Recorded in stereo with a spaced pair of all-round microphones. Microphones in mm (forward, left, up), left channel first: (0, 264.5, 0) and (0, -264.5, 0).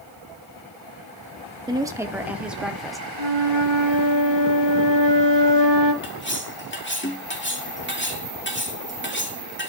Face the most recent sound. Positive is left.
turn(degrees=20)  # may be behind; listen again after turning